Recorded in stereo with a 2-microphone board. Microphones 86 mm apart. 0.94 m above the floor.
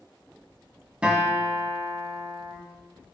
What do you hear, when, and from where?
1.0 s a guitar: 15° right (ahead or behind), 1.5 m